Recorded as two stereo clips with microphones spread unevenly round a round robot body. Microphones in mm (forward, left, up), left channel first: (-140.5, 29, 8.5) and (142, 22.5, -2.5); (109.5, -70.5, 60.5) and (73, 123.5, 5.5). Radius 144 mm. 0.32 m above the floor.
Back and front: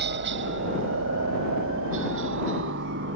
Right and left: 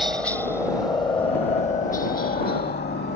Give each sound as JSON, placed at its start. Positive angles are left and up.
{"t": 0.0, "sound": "a helicopter", "azimuth_deg": 25}